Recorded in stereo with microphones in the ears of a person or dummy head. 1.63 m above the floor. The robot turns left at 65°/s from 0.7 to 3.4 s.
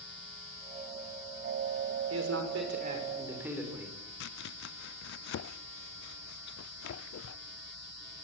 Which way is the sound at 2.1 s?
85° right.